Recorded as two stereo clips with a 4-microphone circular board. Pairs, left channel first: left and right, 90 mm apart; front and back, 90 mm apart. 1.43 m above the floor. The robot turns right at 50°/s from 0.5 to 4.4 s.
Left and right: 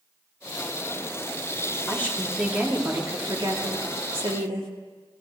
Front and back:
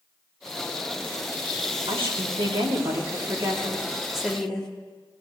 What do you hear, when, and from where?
1.9 s a woman speaking: 150° left, 3 m; by 4.7 s 80° right, 3 m